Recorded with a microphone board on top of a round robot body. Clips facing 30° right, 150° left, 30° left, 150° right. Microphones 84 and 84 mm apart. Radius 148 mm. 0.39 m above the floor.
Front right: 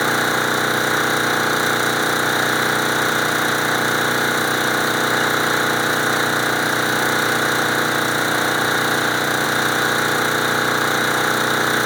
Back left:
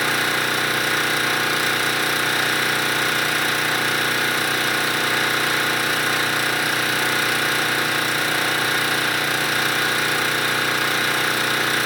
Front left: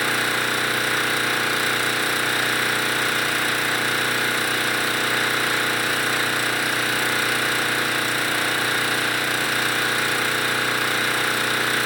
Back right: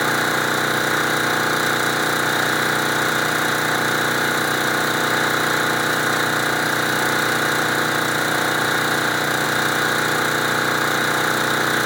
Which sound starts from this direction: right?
An engine running, at 0.0 s.